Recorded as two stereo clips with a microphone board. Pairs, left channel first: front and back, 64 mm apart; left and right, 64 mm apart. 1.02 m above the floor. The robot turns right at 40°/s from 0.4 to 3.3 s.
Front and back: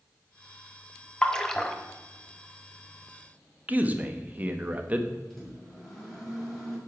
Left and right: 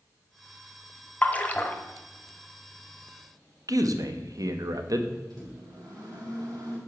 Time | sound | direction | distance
1.2 | a splash | 60° left | 0.8 m
3.7 | a man speaking | 115° right | 1.0 m
5.3 | a microwave | 85° right | 4.5 m